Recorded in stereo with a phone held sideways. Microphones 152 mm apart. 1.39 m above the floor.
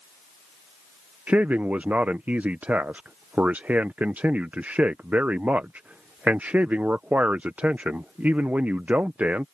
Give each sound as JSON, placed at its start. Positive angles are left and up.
{"t": 1.3, "sound": "a man speaking", "side_deg": -10}